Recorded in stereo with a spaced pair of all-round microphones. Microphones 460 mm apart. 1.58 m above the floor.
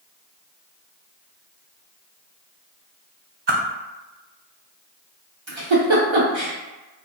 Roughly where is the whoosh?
Right.